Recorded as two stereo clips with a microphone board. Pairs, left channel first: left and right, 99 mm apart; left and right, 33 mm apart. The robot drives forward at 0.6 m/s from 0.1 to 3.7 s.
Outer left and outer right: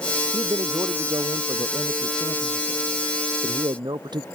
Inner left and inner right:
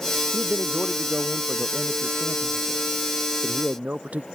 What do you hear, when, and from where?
0.3 s a man speaking: 45° right (ahead or behind); by 4.2 s 50° right (ahead or behind)